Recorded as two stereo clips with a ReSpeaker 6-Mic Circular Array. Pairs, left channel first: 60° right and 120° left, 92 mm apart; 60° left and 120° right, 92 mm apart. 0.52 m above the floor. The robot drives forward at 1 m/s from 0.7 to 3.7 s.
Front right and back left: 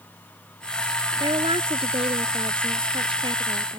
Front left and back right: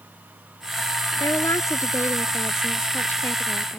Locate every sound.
1.2 s a woman speaking: 115° left; by 3.8 s 130° left